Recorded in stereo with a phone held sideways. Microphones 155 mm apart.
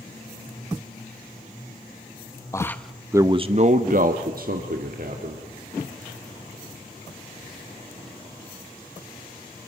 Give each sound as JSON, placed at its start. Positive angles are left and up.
{"t": 2.5, "sound": "a man speaking", "side_deg": 20, "distance_m": 1.1}